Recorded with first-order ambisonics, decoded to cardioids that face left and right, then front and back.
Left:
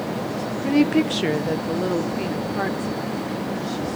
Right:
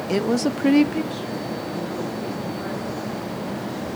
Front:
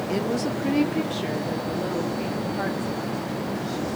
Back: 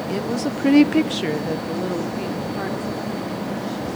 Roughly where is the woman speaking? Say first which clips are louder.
Right 5 dB, back 1 dB; right.